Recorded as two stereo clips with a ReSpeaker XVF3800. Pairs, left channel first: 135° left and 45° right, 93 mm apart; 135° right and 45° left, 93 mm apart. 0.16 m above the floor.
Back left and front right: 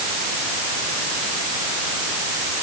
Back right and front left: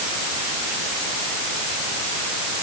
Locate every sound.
Only background noise.